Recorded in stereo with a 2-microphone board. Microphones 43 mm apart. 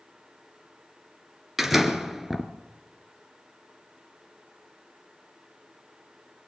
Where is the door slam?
10° right (ahead or behind), 2 m.